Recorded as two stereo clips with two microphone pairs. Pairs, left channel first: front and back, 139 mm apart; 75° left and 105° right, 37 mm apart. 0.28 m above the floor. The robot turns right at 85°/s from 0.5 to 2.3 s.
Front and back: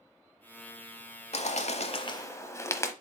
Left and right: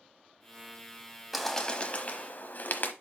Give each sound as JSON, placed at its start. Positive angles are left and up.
{"t": 1.3, "sound": "a bird", "azimuth_deg": -15, "distance_m": 0.9}